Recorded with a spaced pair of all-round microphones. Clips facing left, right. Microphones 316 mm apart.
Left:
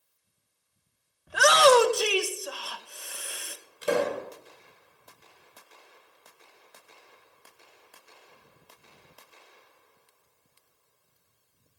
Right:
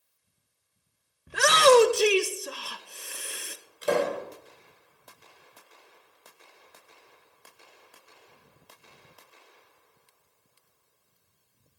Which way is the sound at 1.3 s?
30° right (ahead or behind).